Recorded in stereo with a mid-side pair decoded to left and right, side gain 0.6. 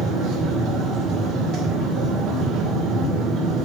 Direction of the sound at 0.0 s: 60° right.